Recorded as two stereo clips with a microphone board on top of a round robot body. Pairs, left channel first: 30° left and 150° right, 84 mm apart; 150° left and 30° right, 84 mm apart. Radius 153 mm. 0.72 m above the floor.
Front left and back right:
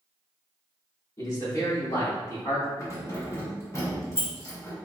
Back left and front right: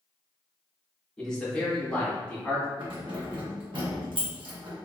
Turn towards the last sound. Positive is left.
turn(degrees=-20)